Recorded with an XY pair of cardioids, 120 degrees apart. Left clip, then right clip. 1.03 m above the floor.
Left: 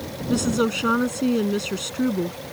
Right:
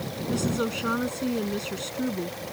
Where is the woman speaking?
35° left.